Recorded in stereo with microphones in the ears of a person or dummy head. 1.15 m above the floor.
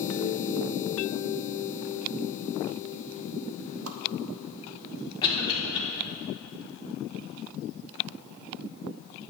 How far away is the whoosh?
About 0.8 m.